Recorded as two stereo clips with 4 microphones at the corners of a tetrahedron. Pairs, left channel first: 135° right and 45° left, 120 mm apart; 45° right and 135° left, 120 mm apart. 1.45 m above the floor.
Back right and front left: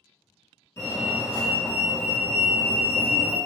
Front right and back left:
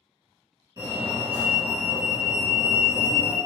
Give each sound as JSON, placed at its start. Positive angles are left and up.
{"t": 0.8, "sound": "a fire alarm", "azimuth_deg": 175, "distance_m": 1.4}